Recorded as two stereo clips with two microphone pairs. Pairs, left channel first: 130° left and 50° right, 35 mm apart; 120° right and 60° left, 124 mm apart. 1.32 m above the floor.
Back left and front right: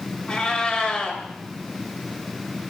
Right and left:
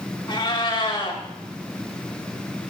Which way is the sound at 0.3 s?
165° right.